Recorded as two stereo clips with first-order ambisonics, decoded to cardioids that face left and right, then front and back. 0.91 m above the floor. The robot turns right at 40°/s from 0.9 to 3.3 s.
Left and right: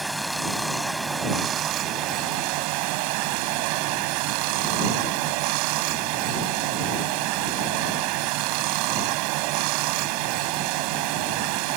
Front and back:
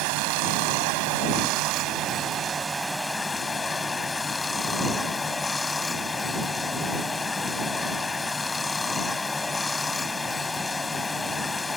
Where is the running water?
175° right; by 11.8 s 80° right.